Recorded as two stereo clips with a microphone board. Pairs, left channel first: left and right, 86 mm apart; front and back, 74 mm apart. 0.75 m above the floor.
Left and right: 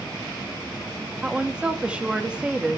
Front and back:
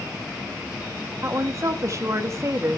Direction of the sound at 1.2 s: 160° right.